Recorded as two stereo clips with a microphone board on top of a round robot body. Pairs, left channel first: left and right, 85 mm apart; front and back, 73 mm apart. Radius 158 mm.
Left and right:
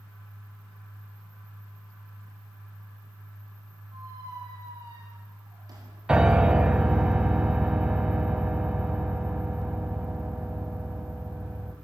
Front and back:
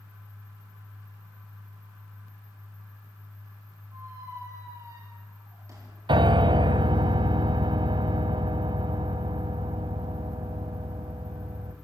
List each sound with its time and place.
3.9 s a squeak: 130° right, 5 m
6.1 s a piano: 170° right, 0.7 m